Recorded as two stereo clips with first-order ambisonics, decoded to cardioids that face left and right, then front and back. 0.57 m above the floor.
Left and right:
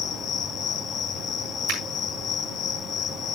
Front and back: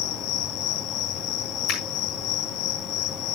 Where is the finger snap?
55° right, 7 m.